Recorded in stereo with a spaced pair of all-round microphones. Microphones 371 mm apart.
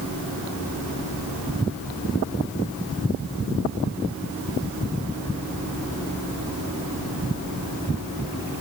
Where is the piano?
No piano in this recording.